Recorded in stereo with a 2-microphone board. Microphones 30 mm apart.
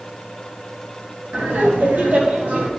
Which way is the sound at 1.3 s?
65° right (ahead or behind).